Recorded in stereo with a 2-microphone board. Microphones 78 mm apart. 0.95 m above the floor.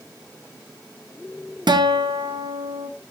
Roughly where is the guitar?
Right.